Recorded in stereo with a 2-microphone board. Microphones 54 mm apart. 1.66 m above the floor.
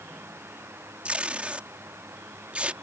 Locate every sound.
1.1 s tape being pulled: 25° right (ahead or behind)